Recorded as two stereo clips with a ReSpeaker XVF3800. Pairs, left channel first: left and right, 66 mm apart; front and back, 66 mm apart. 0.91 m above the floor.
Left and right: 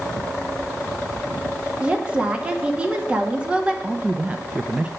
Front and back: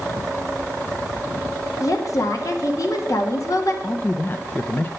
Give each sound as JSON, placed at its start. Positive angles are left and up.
{"t": 1.8, "sound": "a woman speaking", "azimuth_deg": -20, "distance_m": 1.8}
{"t": 3.8, "sound": "a man speaking", "azimuth_deg": -35, "distance_m": 0.6}